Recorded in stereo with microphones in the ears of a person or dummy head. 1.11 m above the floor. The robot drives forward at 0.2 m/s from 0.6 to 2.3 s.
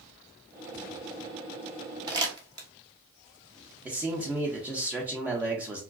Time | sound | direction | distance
2.1 | crumpling | 20° right (ahead or behind) | 0.7 m
3.9 | a man speaking | 10° right (ahead or behind) | 0.9 m